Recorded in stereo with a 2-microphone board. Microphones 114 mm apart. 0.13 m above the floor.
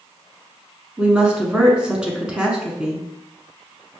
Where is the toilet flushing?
I don't hear a toilet flushing.